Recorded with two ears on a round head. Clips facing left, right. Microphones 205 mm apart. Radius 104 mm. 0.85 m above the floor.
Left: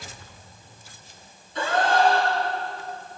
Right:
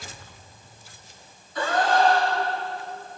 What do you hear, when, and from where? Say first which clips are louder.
1.6 s a gasp: even; 25° left (ahead or behind), 9.5 m